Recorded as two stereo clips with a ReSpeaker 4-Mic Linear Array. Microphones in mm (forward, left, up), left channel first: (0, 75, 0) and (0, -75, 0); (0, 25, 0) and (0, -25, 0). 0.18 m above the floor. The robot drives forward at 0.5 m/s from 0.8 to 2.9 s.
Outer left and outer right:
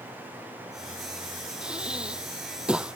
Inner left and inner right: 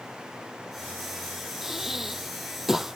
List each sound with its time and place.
1.6 s breathing: 5° right (ahead or behind)